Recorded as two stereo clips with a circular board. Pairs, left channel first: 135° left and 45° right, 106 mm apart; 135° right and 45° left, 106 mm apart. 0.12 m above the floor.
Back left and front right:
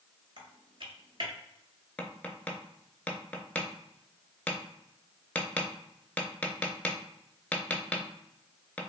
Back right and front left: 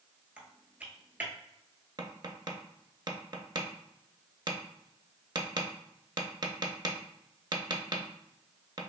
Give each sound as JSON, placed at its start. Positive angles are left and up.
{"t": 0.4, "sound": "typing on a keyboard", "azimuth_deg": -25, "distance_m": 0.8}
{"t": 2.0, "sound": "tapping", "azimuth_deg": 65, "distance_m": 0.6}